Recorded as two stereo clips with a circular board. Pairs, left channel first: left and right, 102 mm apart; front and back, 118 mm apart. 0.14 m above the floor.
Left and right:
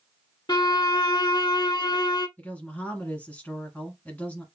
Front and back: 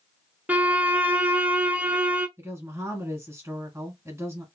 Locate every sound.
0.5 s a violin: 110° left, 0.6 m
2.4 s a woman speaking: 150° left, 1.6 m